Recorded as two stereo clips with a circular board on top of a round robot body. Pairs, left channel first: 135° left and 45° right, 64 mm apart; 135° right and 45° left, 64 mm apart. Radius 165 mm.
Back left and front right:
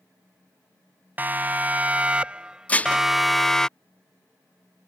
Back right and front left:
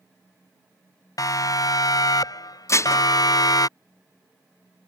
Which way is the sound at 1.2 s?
105° right.